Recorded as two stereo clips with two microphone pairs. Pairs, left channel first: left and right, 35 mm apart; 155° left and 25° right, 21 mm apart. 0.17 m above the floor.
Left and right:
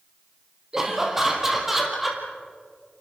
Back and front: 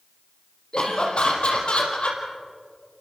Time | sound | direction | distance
0.7 | laughter | 160° right | 5.5 m